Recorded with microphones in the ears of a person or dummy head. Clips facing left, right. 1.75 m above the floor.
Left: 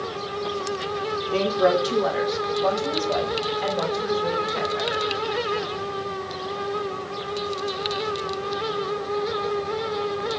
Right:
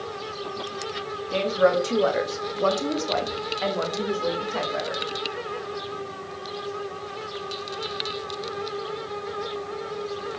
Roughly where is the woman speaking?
Right.